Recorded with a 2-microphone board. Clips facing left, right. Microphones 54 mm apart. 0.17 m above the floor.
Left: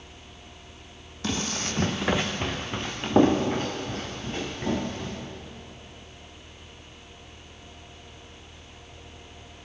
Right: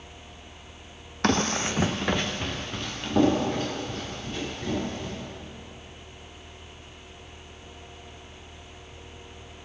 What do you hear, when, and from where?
1.2 s running footsteps: 60° right (ahead or behind), 0.6 m; by 5.1 s 40° left (ahead or behind), 3.5 m